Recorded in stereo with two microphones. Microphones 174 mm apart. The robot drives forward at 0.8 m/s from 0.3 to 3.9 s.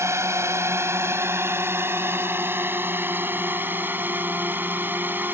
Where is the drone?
15° right (ahead or behind); by 5.3 s 10° right (ahead or behind).